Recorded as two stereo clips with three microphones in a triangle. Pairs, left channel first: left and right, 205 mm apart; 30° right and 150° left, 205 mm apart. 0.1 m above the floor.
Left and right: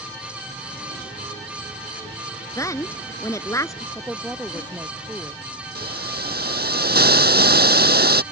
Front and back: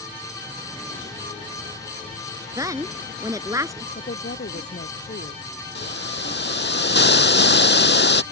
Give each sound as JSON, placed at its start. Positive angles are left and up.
{"t": 2.6, "sound": "a woman speaking", "azimuth_deg": 125}
{"t": 4.0, "sound": "a woman speaking", "azimuth_deg": -5}
{"t": 5.8, "sound": "a hiss", "azimuth_deg": -55}